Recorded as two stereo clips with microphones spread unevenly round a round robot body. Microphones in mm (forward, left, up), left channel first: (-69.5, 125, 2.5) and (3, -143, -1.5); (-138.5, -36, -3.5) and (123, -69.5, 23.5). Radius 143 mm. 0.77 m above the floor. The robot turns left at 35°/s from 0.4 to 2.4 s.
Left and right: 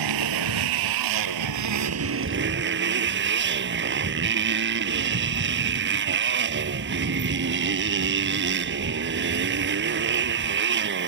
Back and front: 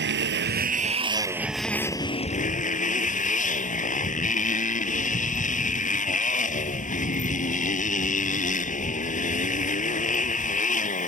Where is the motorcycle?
55° right; by 11.1 s 125° right.